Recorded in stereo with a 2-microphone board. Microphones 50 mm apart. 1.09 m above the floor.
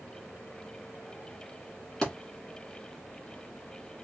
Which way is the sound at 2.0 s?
10° left (ahead or behind).